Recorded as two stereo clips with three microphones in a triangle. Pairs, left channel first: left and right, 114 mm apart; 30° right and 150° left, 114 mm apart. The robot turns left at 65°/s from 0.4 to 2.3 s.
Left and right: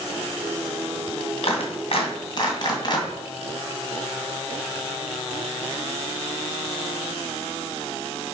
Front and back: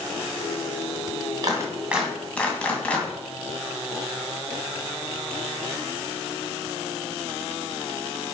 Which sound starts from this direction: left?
A clap, at 1.4 s.